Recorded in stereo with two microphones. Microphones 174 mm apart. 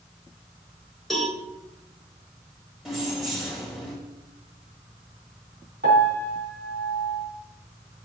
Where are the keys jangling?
Centre (ahead or behind), 3 m.